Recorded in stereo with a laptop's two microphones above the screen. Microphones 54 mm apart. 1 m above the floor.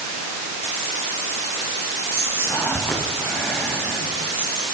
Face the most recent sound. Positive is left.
turn(degrees=45)  # may be behind; listen again after turning